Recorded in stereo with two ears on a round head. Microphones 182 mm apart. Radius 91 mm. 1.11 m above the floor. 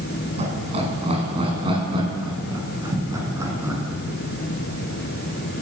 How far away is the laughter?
About 9.5 m.